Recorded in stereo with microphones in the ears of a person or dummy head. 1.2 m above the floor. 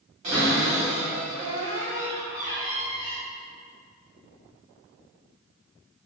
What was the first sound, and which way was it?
A cupboard door, 40° right (ahead or behind).